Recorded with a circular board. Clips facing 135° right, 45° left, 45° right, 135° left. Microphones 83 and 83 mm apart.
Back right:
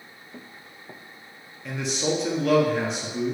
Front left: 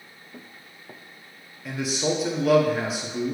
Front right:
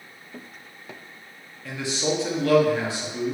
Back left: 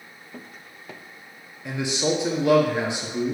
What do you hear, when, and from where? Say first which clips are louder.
1.6 s a man speaking: front left 1 dB, back left 2 dB; 120° left, 0.6 m